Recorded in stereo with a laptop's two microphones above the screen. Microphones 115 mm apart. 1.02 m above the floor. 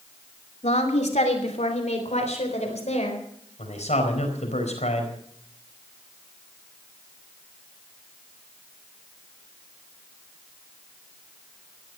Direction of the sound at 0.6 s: 80° left.